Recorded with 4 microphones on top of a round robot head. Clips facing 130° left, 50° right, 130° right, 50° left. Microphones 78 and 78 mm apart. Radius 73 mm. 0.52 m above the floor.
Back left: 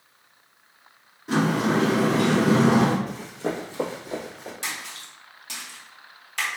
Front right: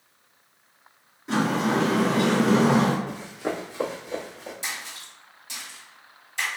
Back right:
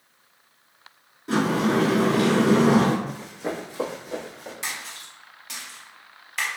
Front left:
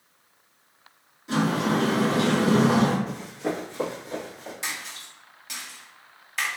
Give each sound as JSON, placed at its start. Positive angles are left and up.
{"t": 1.3, "sound": "a sliding door", "azimuth_deg": -140, "distance_m": 1.7}
{"t": 3.1, "sound": "running footsteps", "azimuth_deg": 140, "distance_m": 0.8}
{"t": 4.6, "sound": "a splash", "azimuth_deg": 140, "distance_m": 1.2}